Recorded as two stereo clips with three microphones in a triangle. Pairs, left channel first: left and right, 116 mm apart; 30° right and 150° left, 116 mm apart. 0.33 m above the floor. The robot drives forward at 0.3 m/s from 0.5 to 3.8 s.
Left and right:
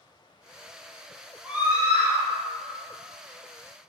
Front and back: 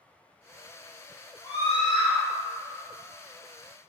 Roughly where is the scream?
Ahead right.